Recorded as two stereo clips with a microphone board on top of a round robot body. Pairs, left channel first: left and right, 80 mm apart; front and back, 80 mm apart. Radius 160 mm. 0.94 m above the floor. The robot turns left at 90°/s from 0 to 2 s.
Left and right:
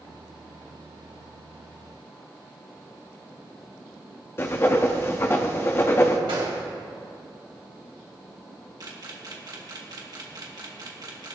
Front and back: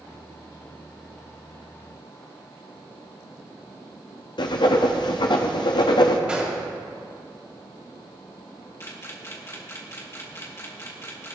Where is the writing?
30° left, 0.8 m.